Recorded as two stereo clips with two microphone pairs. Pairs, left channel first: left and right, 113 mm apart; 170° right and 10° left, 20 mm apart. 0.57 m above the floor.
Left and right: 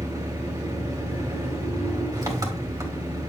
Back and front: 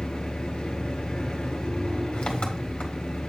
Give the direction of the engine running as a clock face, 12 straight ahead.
5 o'clock.